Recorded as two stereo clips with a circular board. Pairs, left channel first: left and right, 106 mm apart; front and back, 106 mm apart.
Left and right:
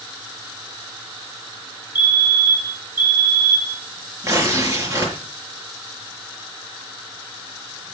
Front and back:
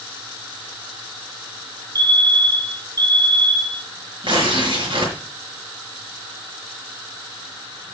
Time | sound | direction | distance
1.9 | a fire alarm | 135° left | 3.5 m
4.2 | tearing paper | 145° right | 5 m